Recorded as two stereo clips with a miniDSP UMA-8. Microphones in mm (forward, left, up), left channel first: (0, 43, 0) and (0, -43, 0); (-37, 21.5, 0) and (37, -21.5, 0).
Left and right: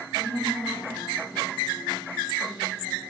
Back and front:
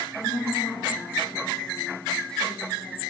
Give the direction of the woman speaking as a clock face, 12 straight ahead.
10 o'clock.